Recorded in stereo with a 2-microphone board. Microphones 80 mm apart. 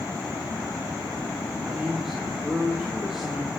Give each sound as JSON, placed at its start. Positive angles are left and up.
{"t": 1.6, "sound": "a man speaking", "side_deg": -5, "distance_m": 4.0}